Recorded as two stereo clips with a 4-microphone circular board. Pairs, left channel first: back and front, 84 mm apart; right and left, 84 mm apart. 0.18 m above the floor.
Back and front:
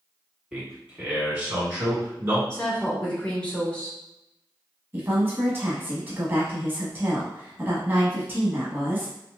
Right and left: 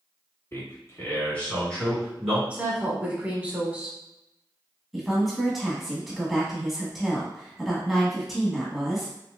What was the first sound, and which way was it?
A man speaking, 70° right.